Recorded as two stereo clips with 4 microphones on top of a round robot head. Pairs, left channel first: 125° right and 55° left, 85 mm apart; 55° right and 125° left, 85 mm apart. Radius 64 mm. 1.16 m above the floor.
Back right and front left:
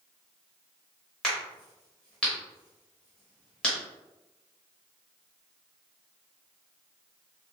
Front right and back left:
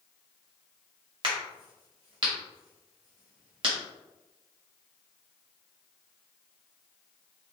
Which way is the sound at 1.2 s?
155° left.